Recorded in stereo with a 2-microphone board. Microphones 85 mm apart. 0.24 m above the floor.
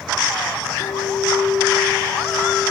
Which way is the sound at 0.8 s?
35° left (ahead or behind).